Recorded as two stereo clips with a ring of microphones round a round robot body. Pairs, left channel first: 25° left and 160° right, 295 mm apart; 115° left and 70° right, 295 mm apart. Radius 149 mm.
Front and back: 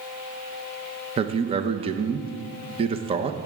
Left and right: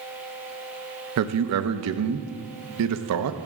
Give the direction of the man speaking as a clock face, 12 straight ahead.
3 o'clock.